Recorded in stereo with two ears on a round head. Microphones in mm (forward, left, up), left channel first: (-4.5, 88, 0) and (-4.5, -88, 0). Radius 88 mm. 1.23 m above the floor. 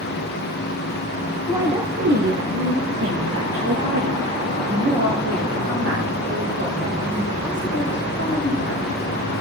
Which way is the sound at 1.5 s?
10° right (ahead or behind).